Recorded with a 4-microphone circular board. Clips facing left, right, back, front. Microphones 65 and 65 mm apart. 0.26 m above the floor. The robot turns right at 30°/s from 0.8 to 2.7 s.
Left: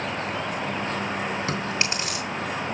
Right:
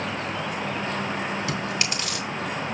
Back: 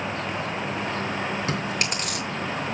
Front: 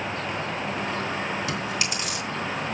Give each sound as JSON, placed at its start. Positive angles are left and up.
{"t": 1.5, "sound": "chewing", "azimuth_deg": 135, "distance_m": 3.0}